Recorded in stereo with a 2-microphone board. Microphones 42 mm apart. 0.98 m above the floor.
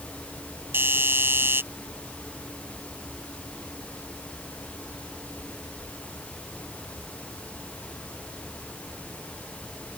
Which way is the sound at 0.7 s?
65° right (ahead or behind).